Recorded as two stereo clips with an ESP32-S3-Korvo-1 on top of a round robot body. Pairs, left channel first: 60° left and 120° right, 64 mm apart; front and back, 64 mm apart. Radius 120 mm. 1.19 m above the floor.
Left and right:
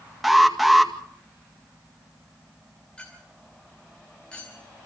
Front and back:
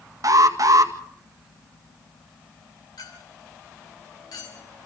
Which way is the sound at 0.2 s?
155° left.